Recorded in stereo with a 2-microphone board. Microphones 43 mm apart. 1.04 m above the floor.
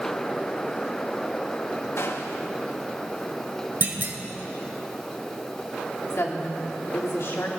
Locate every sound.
2.0 s a gunshot: 70° left (ahead or behind), 1.0 m
3.8 s a clunk: 50° right (ahead or behind), 1.3 m
6.1 s a woman speaking: 70° left (ahead or behind), 2.5 m